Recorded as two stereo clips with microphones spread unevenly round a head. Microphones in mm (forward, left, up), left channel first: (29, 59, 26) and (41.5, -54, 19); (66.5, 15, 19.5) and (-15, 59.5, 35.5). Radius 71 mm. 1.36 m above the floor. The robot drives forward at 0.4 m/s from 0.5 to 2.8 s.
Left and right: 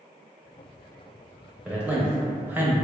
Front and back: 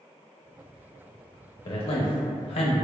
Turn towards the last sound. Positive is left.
turn(degrees=-10)